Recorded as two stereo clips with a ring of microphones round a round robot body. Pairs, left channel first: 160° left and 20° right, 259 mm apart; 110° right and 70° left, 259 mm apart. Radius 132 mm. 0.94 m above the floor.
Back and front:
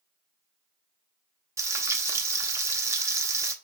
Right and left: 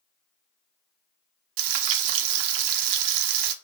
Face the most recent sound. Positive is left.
turn(degrees=55)